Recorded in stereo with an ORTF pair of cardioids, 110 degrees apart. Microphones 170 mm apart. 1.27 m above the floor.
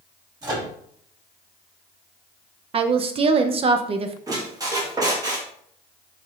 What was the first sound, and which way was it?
A microwave, 20° right.